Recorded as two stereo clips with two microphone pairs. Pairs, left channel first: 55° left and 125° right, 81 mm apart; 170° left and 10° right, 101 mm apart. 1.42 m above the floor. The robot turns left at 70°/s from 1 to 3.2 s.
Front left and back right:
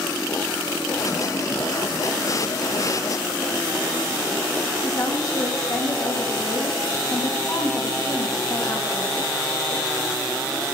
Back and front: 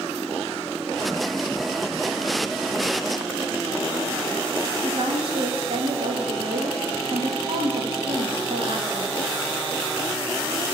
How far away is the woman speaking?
About 2 m.